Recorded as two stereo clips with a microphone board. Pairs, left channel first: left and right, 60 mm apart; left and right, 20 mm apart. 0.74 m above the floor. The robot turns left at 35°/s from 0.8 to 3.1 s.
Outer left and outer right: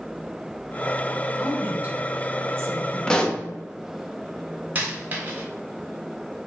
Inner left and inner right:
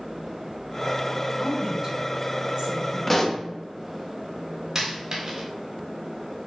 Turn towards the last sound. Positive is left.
turn(degrees=-30)  # may be behind; listen again after turning